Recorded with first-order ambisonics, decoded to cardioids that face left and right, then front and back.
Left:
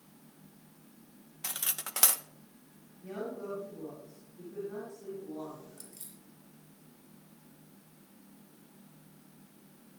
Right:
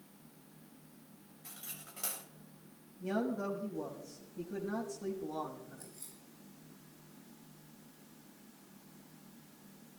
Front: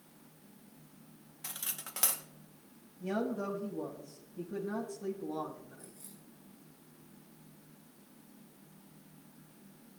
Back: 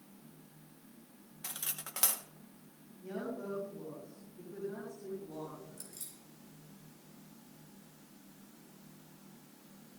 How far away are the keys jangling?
About 5 m.